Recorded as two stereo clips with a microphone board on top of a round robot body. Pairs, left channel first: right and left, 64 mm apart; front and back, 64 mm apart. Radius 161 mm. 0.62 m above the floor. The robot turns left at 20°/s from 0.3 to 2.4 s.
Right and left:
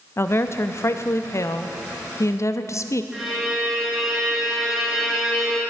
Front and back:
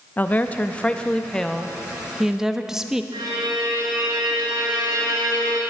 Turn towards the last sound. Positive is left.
turn(degrees=175)